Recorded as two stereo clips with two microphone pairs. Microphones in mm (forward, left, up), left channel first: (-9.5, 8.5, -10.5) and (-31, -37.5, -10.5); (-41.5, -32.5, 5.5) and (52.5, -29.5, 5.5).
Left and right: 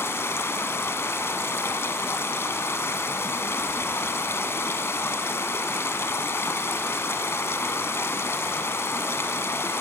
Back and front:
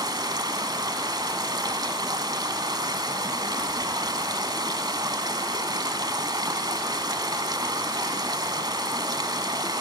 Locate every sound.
0.0 s running water: 40° left, 1.2 m